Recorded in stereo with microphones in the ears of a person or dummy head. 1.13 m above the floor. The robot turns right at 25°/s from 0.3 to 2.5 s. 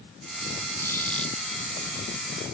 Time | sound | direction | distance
0.8 | a squeak | 15° left (ahead or behind) | ?